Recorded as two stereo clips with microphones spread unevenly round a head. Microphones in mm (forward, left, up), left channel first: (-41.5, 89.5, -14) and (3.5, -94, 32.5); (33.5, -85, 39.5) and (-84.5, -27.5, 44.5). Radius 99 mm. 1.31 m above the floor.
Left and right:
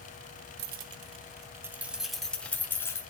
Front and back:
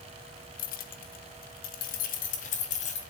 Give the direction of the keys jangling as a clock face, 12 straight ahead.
1 o'clock.